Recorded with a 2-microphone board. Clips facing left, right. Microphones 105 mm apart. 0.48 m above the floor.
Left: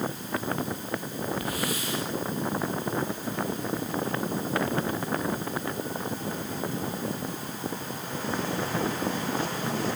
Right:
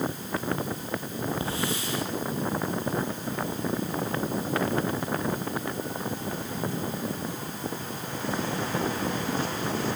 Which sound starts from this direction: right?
A hiss, at 1.4 s.